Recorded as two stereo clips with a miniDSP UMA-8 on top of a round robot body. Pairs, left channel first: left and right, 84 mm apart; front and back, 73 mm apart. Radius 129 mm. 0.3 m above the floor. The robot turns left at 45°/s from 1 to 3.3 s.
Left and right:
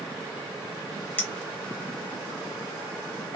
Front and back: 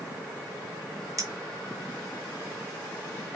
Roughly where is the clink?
Behind left.